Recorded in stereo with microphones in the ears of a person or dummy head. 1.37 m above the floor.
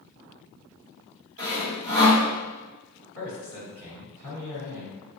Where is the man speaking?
85° right, 2.0 m.